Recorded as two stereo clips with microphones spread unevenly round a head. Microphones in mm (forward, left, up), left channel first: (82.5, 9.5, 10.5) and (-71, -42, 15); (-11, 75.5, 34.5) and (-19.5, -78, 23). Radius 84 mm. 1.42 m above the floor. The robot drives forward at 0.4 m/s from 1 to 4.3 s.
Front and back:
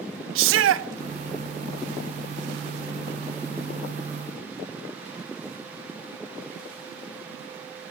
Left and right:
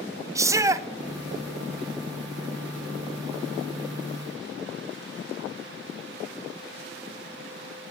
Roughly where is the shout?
Behind.